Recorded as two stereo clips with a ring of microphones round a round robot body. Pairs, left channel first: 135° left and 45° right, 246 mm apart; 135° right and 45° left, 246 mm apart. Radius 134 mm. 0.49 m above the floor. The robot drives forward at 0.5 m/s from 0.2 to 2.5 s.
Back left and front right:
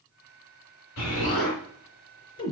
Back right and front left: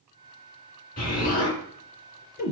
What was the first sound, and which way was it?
An explosion, 165° left.